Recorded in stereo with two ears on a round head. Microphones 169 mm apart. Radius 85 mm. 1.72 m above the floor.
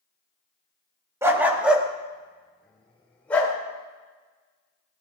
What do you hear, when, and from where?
1.2 s a dog barking: 15° right (ahead or behind), 1.2 m; by 3.5 s 10° left (ahead or behind), 3 m